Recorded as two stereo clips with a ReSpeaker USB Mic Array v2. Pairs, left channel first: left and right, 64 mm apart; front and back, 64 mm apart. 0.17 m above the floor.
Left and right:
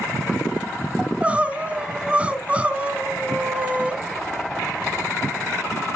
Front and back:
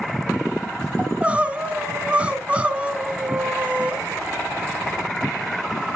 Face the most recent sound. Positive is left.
turn(degrees=-135)